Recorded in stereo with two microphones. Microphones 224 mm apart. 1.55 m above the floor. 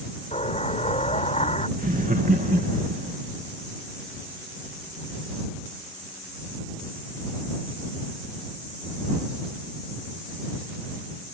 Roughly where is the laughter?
Right.